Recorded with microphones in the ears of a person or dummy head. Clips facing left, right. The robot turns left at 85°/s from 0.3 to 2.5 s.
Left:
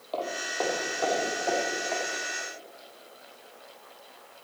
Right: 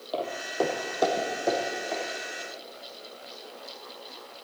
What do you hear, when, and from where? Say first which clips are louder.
0.1 s footsteps: right 3 dB; 10° right (ahead or behind), 2.5 m; by 2.0 s centre (ahead or behind), 4 m